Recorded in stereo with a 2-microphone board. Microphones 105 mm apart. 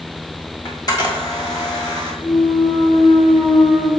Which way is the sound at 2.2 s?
45° left (ahead or behind).